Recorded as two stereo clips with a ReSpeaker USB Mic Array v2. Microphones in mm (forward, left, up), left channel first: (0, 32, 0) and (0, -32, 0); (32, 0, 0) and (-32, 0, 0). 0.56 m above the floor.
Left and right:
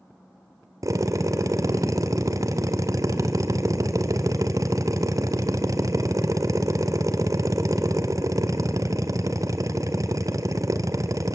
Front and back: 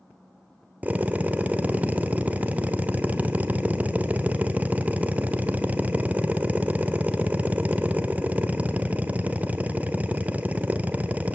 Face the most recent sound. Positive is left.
turn(degrees=-115)